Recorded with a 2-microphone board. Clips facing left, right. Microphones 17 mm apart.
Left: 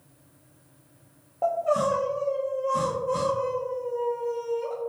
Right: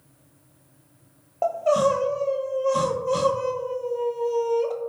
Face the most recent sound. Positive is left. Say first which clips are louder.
# right 3 dB
turn(degrees=-45)  # may be behind; listen again after turning